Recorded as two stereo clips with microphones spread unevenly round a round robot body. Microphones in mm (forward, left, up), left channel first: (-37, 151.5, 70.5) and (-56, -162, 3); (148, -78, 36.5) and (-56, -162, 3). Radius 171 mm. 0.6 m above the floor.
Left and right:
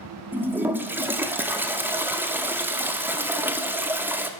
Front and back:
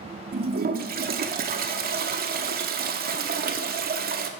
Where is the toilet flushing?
165° right, 0.7 m.